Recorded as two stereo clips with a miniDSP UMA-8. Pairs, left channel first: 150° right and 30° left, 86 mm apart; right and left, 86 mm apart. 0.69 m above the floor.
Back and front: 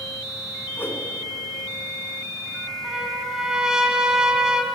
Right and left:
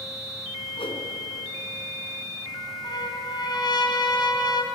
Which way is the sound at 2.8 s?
55° right.